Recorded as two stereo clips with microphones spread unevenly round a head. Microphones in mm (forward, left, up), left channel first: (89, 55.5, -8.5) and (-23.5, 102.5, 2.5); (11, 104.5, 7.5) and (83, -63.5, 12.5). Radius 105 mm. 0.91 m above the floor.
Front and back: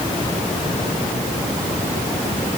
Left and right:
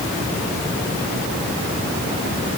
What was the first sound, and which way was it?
Only background noise.